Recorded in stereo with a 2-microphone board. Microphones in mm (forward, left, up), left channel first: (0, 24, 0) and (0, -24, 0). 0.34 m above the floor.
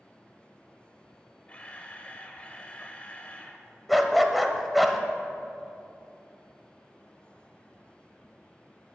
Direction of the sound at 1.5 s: 25° left (ahead or behind).